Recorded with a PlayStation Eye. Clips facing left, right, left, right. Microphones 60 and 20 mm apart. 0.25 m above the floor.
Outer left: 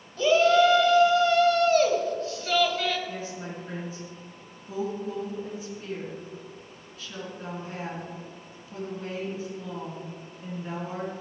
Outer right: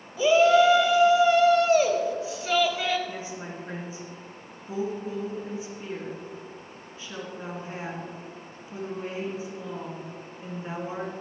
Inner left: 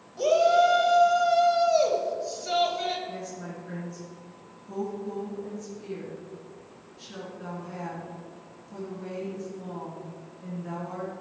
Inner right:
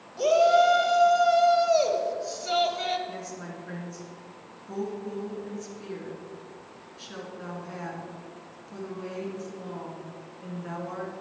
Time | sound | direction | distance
0.2 | a shout | 10° right (ahead or behind) | 1.3 m
3.1 | a woman speaking | 25° right (ahead or behind) | 3 m